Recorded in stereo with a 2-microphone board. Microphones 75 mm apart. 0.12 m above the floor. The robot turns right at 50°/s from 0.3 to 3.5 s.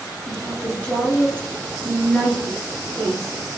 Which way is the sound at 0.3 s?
10° left (ahead or behind).